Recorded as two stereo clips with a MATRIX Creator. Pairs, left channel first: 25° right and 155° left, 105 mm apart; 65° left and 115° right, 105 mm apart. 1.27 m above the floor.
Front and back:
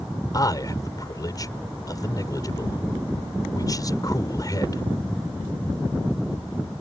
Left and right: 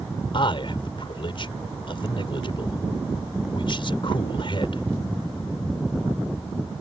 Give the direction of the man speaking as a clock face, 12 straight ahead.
11 o'clock.